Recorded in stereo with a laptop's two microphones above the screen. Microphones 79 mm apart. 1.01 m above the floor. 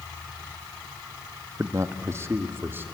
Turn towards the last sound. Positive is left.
turn(degrees=-25)  # may be behind; listen again after turning